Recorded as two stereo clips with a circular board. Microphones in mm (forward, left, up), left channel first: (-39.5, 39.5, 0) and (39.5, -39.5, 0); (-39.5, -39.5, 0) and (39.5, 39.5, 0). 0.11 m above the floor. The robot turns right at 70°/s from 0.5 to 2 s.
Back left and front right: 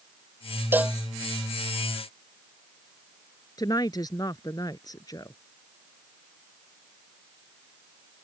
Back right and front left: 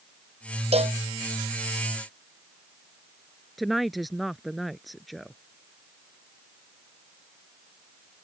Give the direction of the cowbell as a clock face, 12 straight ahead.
11 o'clock.